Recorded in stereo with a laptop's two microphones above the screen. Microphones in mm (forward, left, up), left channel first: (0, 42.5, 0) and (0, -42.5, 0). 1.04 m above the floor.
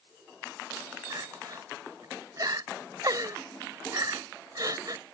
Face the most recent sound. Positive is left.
turn(degrees=-50)  # may be behind; listen again after turning